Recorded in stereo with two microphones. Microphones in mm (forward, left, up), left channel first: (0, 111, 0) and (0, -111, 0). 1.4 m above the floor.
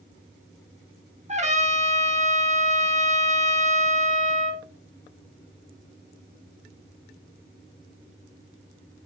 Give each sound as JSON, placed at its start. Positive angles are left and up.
{"t": 1.3, "sound": "a trumpet", "side_deg": -30, "distance_m": 1.4}